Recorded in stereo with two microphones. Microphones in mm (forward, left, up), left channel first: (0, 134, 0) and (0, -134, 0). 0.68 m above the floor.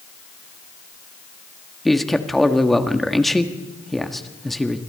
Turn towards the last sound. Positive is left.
turn(degrees=0)  # may be behind; listen again after turning